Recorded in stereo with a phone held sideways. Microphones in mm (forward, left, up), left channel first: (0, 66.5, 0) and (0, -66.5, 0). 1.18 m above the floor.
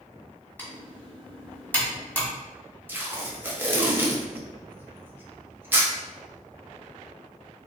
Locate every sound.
0.6 s typing on a keyboard: 15° left (ahead or behind), 1.3 m
2.9 s tape being pulled: 15° right (ahead or behind), 0.8 m